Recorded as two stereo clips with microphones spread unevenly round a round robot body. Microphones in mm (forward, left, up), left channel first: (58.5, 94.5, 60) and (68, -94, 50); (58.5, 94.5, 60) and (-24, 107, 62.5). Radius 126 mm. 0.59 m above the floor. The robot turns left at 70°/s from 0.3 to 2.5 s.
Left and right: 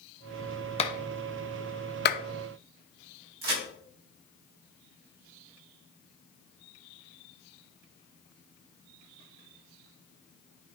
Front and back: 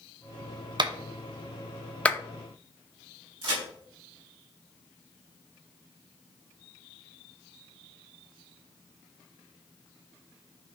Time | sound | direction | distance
0.8 | a clap | 155° left | 1.0 m
3.4 | a crack | 135° right | 5 m